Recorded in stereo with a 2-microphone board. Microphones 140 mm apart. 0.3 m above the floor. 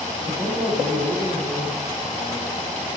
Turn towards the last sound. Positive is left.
turn(degrees=-65)  # may be behind; listen again after turning